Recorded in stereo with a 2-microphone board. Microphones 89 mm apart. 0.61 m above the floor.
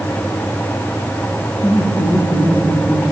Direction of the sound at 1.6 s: 70° left (ahead or behind).